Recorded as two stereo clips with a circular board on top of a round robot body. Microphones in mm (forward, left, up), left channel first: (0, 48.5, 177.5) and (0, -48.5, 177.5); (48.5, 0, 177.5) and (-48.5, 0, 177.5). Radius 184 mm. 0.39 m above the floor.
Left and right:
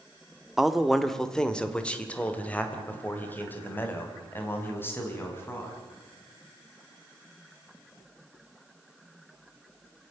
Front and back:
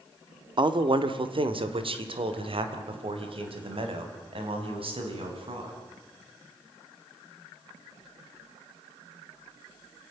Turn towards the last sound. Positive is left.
turn(degrees=155)